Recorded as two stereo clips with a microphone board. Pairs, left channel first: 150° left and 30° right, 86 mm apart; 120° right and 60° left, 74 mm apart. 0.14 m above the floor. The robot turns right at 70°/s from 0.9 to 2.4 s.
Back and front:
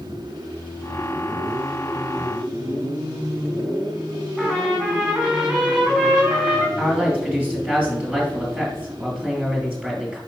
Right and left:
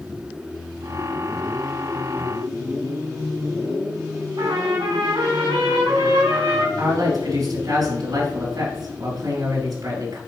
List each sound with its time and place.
4.4 s a trumpet: 45° left, 3 m
6.8 s a man speaking: 45° left, 3 m